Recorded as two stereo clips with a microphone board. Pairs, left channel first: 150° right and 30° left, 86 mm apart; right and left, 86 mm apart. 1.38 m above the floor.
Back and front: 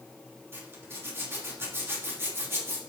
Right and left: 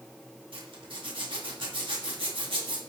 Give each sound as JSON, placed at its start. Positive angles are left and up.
{"t": 0.5, "sound": "a zipper", "azimuth_deg": 90, "distance_m": 2.5}